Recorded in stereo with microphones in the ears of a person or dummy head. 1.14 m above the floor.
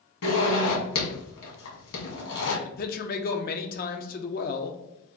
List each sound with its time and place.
0.2 s a zipper: 70° left (ahead or behind), 1.7 m
2.6 s a man speaking: 40° left (ahead or behind), 0.6 m